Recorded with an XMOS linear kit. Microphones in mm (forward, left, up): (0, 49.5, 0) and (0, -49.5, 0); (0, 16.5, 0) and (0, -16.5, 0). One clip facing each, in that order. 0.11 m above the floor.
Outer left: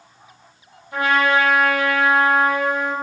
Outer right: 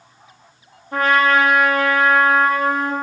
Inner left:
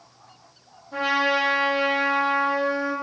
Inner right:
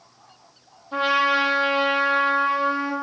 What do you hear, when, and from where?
0.9 s a trumpet: 45° right (ahead or behind), 0.7 m